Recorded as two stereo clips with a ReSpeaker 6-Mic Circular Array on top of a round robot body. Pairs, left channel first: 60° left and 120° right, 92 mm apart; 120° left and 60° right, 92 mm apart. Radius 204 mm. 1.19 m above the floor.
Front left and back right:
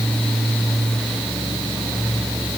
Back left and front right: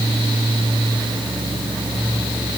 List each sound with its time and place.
Only background noise.